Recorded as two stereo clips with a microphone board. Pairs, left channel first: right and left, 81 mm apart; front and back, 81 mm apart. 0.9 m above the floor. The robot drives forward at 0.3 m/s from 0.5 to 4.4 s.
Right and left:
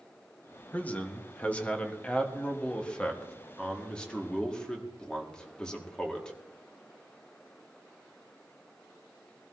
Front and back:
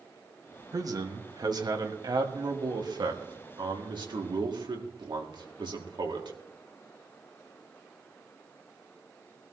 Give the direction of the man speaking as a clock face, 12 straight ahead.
5 o'clock.